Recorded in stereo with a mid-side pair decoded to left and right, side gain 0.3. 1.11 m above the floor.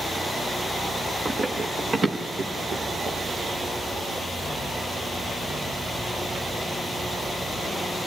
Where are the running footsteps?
55° right, 5 m; by 3.2 s 80° right, 6 m.